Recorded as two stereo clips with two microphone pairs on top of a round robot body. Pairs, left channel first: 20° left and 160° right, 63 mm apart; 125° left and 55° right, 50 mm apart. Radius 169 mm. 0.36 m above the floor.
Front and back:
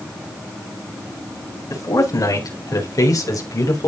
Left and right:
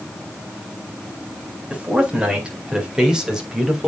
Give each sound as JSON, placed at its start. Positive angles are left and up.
{"t": 1.7, "sound": "a man speaking", "azimuth_deg": 10, "distance_m": 4.5}